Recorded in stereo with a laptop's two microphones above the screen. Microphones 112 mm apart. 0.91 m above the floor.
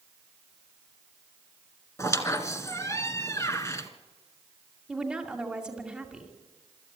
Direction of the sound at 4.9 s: 10° right (ahead or behind).